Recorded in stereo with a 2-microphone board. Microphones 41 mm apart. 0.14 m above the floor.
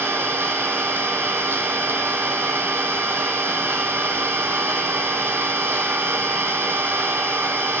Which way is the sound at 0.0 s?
70° right (ahead or behind).